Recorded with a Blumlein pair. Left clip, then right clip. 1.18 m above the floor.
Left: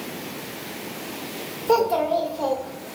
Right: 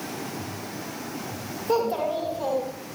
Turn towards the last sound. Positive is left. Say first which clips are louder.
# left 5 dB
turn(degrees=25)